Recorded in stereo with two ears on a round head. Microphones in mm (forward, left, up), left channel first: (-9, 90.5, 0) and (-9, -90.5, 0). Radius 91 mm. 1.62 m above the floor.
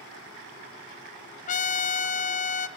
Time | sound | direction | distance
1.5 | a trumpet | 40° left (ahead or behind) | 0.8 m